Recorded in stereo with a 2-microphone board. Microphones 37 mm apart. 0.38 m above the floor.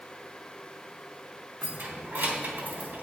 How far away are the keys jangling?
About 2.5 m.